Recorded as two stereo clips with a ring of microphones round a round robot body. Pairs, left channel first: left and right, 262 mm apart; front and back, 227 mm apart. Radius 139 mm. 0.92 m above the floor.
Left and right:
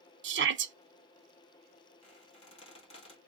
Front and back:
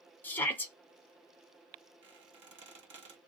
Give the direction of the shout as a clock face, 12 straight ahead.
3 o'clock.